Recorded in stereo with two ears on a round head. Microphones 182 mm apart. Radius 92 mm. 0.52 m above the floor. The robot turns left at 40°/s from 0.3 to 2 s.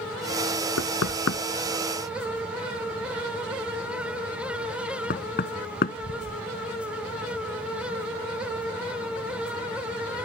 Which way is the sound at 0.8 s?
80° left.